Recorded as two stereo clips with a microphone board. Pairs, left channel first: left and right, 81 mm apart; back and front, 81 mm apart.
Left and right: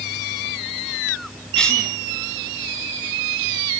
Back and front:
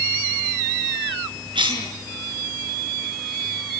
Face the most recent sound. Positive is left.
turn(degrees=10)